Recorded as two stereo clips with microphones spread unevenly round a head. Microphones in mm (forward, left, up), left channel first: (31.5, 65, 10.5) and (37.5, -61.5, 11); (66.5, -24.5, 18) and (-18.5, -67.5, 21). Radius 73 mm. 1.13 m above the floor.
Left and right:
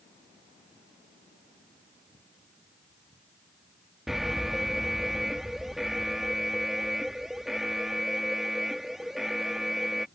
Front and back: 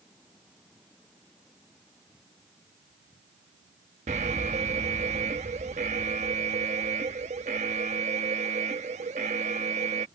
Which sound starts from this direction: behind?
An alarm, at 4.1 s.